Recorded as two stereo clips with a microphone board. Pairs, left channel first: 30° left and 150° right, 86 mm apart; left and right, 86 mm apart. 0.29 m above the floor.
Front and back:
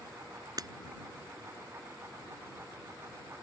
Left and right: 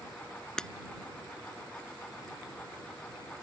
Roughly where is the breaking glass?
Behind.